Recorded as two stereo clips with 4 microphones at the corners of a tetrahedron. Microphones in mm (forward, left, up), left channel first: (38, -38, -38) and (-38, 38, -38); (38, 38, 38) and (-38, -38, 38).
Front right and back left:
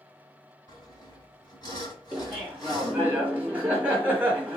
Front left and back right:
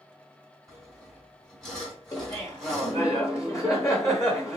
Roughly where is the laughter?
Left.